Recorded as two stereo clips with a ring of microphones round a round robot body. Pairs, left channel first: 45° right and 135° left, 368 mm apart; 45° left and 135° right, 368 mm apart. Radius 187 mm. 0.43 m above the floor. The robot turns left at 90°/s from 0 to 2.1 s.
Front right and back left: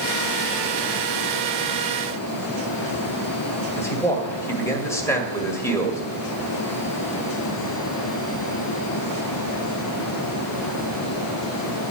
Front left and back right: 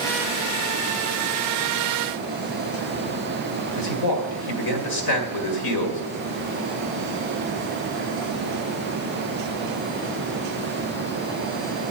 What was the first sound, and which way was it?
A man speaking, 35° left.